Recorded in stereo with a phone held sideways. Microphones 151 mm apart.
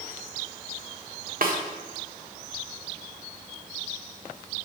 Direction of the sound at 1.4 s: 70° right (ahead or behind).